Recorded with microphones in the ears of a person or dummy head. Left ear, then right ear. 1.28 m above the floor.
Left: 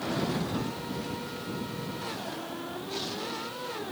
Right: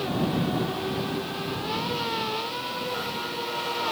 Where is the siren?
No siren in this recording.